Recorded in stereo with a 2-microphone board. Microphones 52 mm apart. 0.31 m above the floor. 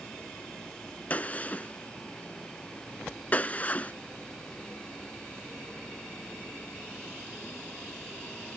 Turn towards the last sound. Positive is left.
turn(degrees=35)  # may be behind; listen again after turning